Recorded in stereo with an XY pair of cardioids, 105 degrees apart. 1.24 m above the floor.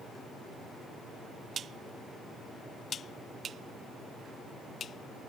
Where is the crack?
No crack in this recording.